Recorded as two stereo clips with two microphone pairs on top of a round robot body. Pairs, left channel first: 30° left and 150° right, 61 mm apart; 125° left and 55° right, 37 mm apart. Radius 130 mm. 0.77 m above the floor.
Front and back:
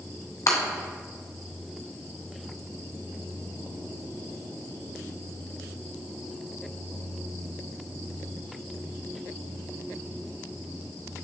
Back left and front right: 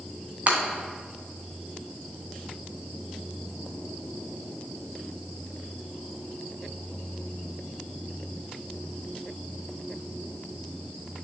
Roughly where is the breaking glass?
Ahead.